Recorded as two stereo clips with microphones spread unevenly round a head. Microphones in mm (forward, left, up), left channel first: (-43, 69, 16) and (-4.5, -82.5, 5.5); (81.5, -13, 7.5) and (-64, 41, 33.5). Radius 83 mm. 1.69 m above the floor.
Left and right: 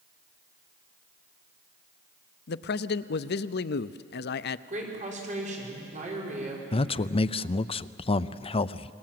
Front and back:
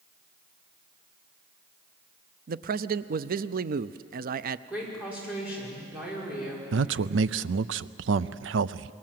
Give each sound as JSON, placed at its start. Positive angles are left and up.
{"t": 2.5, "sound": "a man speaking", "azimuth_deg": 125, "distance_m": 0.6}
{"t": 4.7, "sound": "a woman speaking", "azimuth_deg": -120, "distance_m": 5.5}
{"t": 6.7, "sound": "a man speaking", "azimuth_deg": 160, "distance_m": 0.6}